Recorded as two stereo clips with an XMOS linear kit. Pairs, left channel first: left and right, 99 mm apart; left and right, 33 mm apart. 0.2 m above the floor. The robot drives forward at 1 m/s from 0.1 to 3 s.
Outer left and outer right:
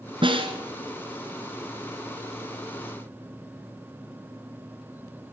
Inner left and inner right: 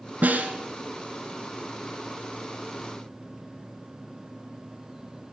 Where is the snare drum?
60° right (ahead or behind), 1.4 m; by 0.5 s 65° right (ahead or behind), 1.3 m.